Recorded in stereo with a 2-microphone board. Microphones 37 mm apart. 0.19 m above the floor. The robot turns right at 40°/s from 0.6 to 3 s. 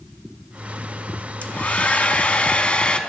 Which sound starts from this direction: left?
A hair dryer, at 1.4 s.